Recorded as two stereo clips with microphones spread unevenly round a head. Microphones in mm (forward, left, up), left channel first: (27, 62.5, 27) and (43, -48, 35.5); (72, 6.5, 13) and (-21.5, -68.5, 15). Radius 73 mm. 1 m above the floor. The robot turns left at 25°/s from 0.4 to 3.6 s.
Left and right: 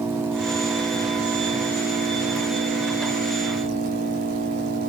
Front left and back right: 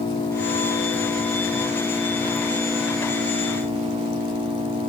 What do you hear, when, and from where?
0.0 s an engine running: 15° right, 6 m; by 4.9 s 95° right, 6 m